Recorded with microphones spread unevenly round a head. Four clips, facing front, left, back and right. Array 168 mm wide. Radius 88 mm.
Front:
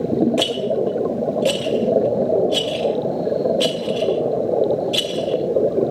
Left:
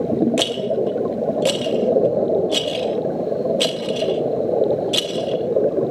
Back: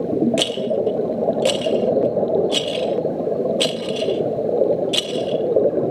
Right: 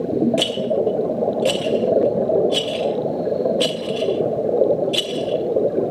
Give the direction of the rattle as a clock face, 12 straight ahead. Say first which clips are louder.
Right 1 dB, front 1 dB; 8 o'clock.